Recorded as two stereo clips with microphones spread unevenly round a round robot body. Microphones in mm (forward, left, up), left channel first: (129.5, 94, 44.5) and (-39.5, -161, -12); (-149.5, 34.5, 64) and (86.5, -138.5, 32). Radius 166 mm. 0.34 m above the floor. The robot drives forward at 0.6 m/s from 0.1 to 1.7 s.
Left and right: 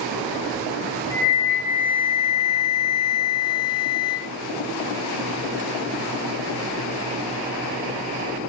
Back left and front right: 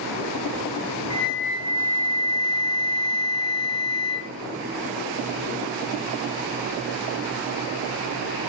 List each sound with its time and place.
1.1 s a flute: 115° left, 1.0 m; by 4.3 s 135° left, 1.1 m